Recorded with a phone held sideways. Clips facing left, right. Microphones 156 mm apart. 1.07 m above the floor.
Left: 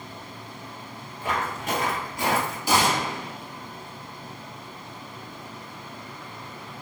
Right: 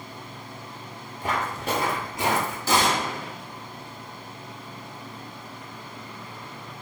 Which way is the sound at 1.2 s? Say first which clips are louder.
Right 1 dB; 45° right (ahead or behind).